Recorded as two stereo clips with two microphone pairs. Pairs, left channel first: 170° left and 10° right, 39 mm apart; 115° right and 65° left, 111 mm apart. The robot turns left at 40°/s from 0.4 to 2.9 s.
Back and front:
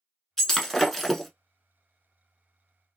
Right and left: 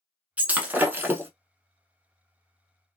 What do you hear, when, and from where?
0.4 s breaking glass: 115° left, 0.6 m; by 1.3 s 80° left, 0.6 m